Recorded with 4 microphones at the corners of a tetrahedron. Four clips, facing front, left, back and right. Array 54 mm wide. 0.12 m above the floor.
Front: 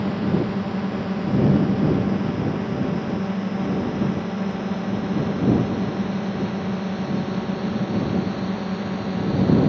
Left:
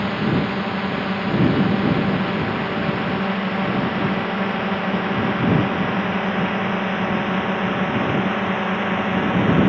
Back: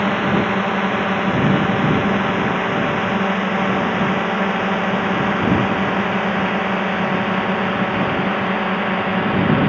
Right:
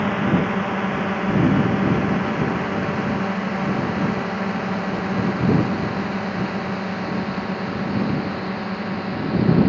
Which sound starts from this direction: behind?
A drone, at 0.0 s.